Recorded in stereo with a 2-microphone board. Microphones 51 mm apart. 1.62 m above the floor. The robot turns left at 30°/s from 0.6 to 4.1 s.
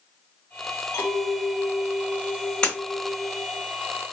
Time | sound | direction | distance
0.9 | a clink | 95° left | 1.5 m
2.6 | breaking glass | 20° left (ahead or behind) | 1.7 m